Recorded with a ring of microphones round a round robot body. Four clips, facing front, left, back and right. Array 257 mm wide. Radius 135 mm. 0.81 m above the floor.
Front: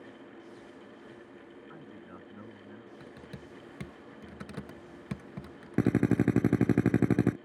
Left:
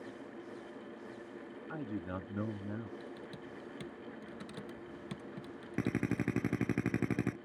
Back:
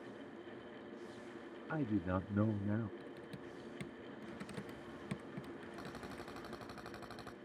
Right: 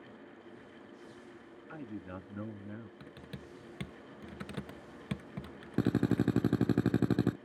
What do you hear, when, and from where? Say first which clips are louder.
1.7 s a man speaking: left 3 dB, back 15 dB; 165° left
3.0 s typing on a keyboard: left 3 dB, front 2 dB; 45° right
5.8 s a drill: right 5 dB, front 22 dB; 15° right